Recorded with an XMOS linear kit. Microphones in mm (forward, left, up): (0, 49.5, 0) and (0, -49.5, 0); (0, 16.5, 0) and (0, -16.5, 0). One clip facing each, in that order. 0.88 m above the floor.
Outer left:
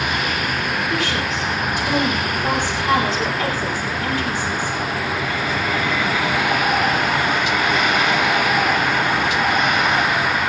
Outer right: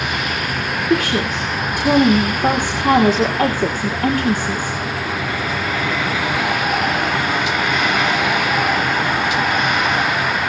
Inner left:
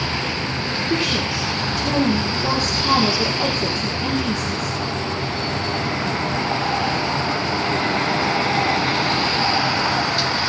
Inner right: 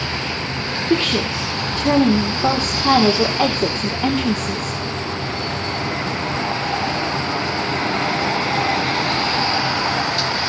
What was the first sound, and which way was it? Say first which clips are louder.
A woman speaking: outer right 4 dB, inner right 4 dB; 55° right (ahead or behind).